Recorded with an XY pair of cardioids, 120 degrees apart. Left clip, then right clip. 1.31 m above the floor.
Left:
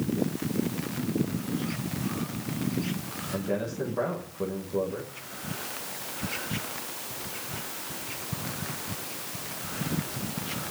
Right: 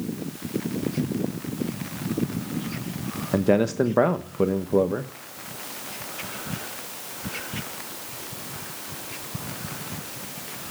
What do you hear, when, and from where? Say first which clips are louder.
3.3 s a man speaking: right 10 dB; 70° right, 0.9 m